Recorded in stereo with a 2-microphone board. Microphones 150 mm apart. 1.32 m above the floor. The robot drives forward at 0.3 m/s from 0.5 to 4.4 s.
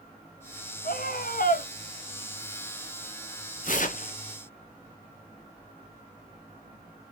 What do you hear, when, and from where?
0.8 s a scream: 70° left (ahead or behind), 1.2 m; by 1.7 s 65° left (ahead or behind), 1.2 m
3.6 s tearing paper: 60° left (ahead or behind), 0.9 m